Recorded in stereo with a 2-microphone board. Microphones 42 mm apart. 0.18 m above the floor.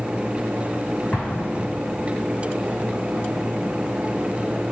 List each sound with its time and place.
1.1 s an explosion: 35° left (ahead or behind), 2.5 m